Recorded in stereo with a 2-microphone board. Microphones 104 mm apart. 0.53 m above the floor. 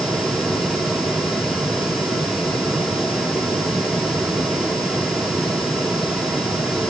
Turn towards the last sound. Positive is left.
No sound to turn to.